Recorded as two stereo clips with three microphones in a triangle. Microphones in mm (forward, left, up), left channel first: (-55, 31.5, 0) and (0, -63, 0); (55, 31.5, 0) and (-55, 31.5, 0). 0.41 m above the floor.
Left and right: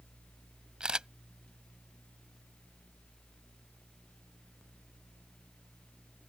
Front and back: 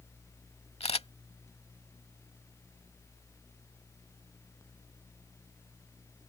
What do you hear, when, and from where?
0.8 s a camera shutter: 20° left